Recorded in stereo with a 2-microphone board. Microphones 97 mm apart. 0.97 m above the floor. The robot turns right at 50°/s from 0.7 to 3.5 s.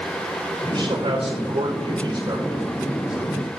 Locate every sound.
0.7 s a man speaking: 125° right, 4 m; by 3.5 s 15° left, 4 m